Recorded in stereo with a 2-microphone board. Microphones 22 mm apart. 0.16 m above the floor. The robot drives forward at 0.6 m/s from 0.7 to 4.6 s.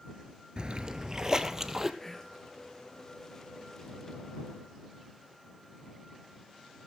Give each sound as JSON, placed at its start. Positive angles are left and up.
{"t": 0.6, "sound": "a splash", "side_deg": -45, "distance_m": 0.6}
{"t": 2.0, "sound": "whispering", "side_deg": 15, "distance_m": 3.0}